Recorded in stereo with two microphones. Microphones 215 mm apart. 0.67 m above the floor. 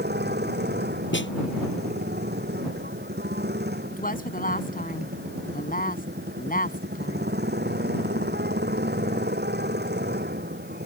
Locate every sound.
0.0 s a motorcycle: 50° right (ahead or behind)
1.1 s a snare drum: 60° left (ahead or behind)
3.9 s a woman speaking: 40° left (ahead or behind)